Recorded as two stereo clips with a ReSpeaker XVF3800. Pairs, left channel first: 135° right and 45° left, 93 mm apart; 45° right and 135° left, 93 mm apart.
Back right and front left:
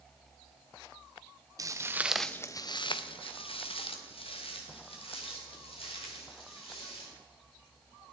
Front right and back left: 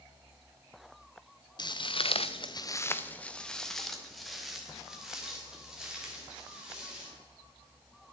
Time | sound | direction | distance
1.6 | footsteps | 5° right | 1.0 m